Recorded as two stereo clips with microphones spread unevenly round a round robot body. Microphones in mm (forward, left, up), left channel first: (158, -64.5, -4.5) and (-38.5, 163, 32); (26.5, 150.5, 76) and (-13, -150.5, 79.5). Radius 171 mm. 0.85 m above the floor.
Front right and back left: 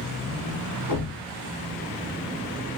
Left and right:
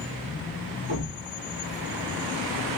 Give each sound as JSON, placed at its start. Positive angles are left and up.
{"t": 0.9, "sound": "a thud", "azimuth_deg": -40, "distance_m": 1.8}